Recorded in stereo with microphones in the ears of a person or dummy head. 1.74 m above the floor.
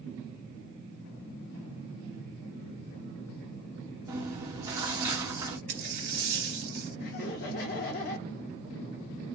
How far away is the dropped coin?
About 1.9 m.